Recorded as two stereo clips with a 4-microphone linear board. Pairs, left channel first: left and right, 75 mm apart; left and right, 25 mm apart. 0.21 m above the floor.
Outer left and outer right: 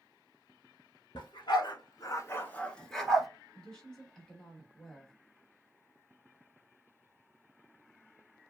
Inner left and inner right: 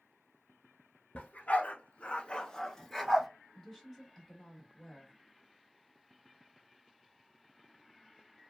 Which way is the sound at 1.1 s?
80° left.